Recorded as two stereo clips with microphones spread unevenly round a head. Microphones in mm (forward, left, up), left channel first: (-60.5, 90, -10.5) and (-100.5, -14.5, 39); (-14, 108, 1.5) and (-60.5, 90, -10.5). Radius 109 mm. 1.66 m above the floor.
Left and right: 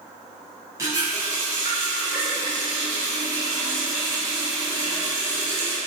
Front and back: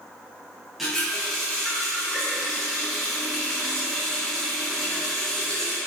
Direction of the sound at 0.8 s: 60° right.